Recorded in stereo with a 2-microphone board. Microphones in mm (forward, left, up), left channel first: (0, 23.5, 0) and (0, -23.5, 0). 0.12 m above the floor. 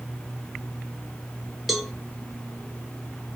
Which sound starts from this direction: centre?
A cowbell, at 1.7 s.